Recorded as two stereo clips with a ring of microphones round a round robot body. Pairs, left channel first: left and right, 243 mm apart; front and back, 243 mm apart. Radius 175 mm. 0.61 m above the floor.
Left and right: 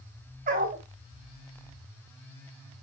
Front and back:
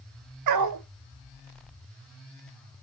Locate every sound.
0.5 s a dog barking: 160° right, 0.8 m